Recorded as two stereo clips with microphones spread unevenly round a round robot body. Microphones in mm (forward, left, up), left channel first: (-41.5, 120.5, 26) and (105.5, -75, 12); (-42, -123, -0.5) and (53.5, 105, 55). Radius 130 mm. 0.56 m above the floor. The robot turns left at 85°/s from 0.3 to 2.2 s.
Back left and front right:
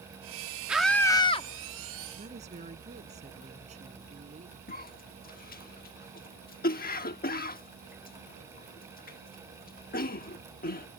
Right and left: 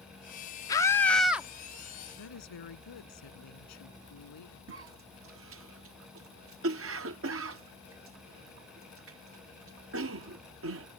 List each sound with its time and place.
0.7 s a scream: 130° right; by 1.5 s 165° left
2.2 s a woman speaking: 120° right
4.7 s a cough: 90° left